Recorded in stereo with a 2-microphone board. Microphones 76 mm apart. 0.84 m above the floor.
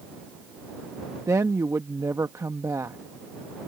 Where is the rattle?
No rattle in this recording.